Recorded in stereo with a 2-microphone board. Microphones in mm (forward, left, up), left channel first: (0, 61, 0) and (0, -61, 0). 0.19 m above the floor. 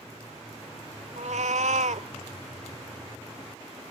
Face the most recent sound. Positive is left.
turn(degrees=-75)  # may be behind; listen again after turning